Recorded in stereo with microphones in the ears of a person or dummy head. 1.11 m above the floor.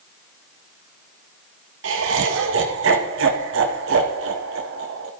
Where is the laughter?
65° right (ahead or behind), 1.6 m.